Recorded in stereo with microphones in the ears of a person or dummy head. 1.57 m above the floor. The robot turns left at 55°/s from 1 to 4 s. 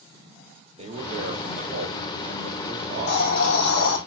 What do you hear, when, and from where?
0.8 s a man speaking: 40° right, 2.5 m; by 3.9 s 160° left, 2.5 m
2.9 s a hiss: 150° left, 4 m; by 4.0 s 90° left, 4 m